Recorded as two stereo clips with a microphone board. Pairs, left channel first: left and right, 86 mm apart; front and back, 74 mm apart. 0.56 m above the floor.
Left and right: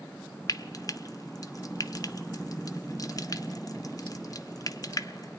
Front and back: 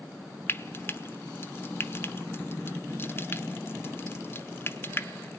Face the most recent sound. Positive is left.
turn(degrees=50)